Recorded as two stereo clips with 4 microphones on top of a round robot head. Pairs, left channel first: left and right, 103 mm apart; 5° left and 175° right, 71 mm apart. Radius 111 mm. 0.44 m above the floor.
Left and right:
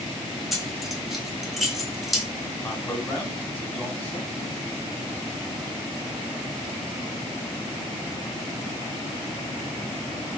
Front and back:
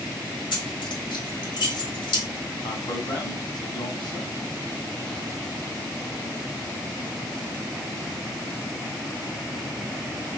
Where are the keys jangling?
Straight ahead, 3.5 m.